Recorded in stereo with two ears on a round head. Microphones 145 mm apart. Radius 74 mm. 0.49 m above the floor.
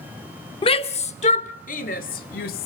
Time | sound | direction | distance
0.6 | a shout | 30° left (ahead or behind) | 0.9 m